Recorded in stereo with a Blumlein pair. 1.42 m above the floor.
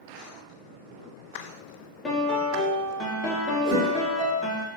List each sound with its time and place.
2.0 s a piano: 15° left, 0.8 m
3.6 s a whoosh: 25° right, 1.7 m